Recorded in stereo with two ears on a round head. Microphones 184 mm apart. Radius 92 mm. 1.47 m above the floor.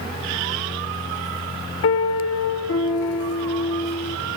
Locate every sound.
1.8 s a piano: 70° left (ahead or behind), 0.8 m